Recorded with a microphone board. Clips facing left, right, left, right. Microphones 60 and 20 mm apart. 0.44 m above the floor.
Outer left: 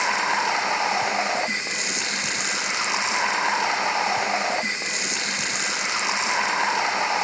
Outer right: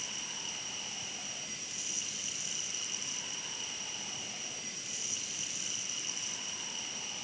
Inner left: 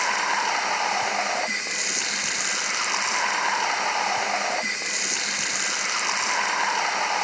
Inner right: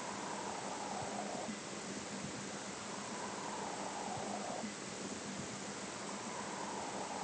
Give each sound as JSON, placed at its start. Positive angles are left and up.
{"t": 0.0, "sound": "running water", "side_deg": 80}